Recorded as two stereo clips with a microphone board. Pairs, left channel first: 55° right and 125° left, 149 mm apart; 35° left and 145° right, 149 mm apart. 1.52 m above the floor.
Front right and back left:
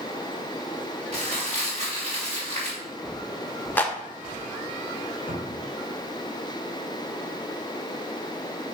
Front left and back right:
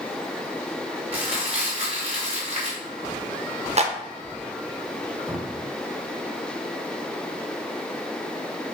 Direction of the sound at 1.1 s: 165° left.